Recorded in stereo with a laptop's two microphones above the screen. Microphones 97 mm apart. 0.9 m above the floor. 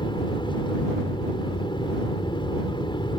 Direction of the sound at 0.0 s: 50° left (ahead or behind).